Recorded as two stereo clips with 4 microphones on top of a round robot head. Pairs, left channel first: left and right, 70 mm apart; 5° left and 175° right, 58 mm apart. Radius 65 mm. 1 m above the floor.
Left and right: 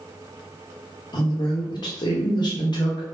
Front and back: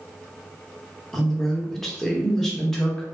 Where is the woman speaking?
90° left, 1.0 m.